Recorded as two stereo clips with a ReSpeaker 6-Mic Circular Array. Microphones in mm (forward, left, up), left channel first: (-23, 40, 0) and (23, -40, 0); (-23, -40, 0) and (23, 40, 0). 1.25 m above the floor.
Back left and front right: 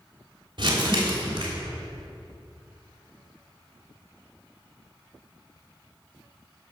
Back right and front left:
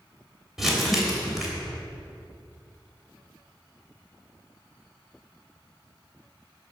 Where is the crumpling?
30° right, 3 m.